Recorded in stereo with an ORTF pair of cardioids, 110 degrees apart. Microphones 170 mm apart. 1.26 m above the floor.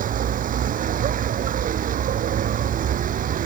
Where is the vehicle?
55° right.